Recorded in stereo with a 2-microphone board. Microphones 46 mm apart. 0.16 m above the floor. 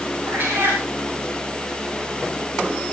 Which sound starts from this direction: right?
A cat meowing, at 0.3 s.